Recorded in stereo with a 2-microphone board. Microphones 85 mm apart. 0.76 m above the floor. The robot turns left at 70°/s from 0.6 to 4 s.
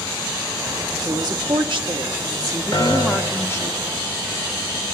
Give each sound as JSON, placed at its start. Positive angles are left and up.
{"t": 1.1, "sound": "a woman speaking", "azimuth_deg": -40, "distance_m": 1.3}
{"t": 2.7, "sound": "a piano", "azimuth_deg": 120, "distance_m": 1.8}